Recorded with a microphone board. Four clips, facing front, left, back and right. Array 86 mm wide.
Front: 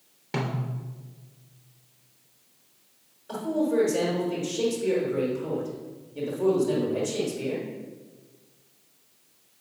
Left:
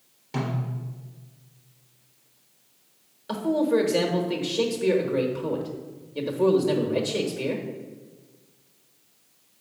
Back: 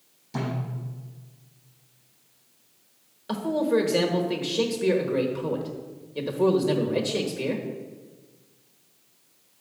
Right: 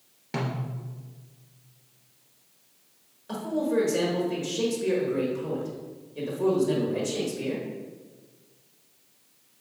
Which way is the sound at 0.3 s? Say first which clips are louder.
Left 2 dB, even; 30° right.